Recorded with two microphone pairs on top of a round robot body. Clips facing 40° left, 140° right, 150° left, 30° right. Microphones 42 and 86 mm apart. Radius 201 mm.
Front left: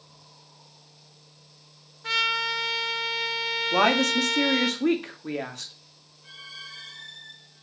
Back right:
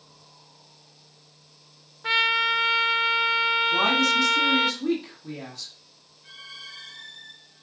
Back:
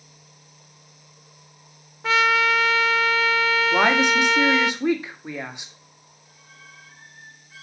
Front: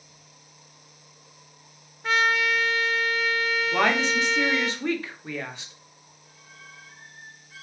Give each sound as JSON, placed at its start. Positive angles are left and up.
{"t": 2.0, "sound": "a trumpet", "azimuth_deg": 150, "distance_m": 0.5}
{"t": 3.7, "sound": "a woman speaking", "azimuth_deg": 80, "distance_m": 1.9}